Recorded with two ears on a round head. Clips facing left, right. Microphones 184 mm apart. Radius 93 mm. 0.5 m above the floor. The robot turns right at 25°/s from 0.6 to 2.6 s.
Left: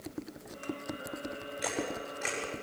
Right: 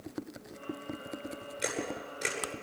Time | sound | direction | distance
1.6 | a camera shutter | 35° right (ahead or behind) | 10 m